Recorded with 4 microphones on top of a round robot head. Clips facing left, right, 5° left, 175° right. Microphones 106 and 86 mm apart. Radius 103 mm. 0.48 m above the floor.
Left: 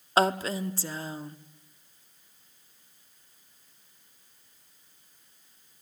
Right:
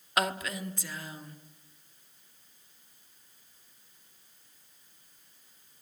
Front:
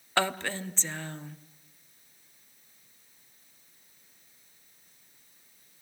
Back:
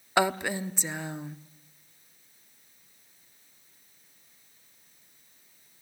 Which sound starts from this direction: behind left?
A woman speaking, at 0.2 s.